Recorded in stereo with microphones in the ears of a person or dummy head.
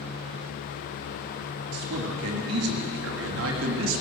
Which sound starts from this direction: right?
A man speaking, at 1.7 s.